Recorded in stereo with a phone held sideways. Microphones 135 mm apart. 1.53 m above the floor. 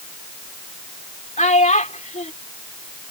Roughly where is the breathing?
I don't hear breathing.